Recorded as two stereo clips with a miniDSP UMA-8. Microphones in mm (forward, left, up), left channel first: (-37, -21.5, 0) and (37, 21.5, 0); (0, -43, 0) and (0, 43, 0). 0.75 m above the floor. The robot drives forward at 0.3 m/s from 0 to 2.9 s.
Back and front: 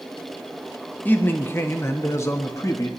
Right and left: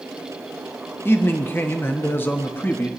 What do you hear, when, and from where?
1.1 s a man speaking: 110° right, 1.2 m; by 2.9 s 145° right, 1.4 m